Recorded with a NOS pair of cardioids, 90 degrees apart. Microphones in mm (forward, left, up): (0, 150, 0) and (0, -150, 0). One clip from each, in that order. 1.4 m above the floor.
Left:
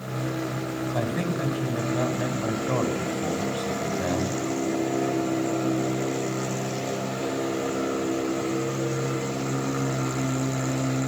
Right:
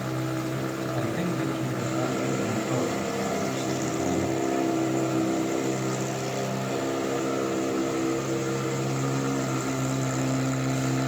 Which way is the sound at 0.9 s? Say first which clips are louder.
Left 2 dB; 35° left.